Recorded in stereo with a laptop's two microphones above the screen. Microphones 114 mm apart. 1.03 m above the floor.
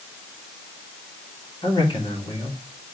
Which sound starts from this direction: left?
A man speaking, at 1.6 s.